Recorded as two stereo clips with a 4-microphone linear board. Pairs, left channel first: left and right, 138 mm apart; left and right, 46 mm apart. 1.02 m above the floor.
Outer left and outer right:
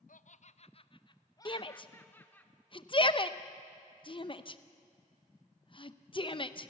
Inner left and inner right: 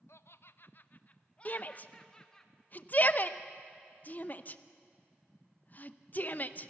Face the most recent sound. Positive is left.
turn(degrees=40)  # may be behind; listen again after turning